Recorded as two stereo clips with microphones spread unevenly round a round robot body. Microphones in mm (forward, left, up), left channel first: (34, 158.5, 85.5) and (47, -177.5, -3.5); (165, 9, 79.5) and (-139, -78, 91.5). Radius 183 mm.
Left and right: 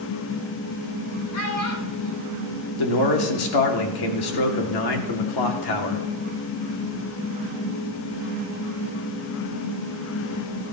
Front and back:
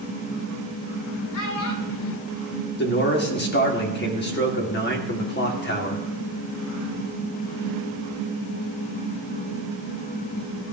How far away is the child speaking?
About 5.5 m.